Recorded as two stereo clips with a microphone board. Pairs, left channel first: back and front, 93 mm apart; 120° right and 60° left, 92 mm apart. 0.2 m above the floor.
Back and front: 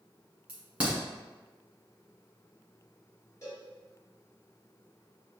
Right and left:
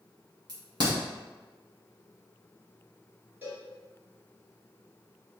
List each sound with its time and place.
0.5 s a crack: 75° left, 2.0 m
3.4 s a cowbell: 130° left, 1.8 m